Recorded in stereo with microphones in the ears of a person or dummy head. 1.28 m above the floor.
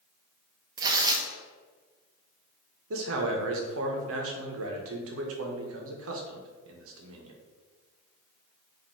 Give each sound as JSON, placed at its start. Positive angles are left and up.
{"t": 0.8, "sound": "tearing paper", "side_deg": -25, "distance_m": 0.8}
{"t": 2.9, "sound": "a man speaking", "side_deg": -85, "distance_m": 0.9}